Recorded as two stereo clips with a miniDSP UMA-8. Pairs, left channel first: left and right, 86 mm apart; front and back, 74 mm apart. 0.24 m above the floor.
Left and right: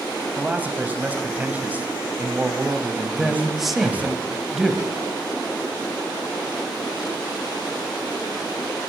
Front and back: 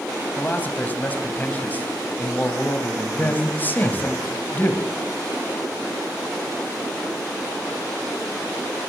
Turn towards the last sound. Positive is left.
turn(degrees=-5)